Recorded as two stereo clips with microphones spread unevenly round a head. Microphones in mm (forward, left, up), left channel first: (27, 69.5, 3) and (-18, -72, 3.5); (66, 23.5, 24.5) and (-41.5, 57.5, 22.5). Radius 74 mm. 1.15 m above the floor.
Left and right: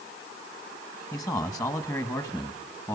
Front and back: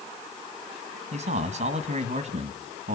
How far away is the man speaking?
About 1.9 m.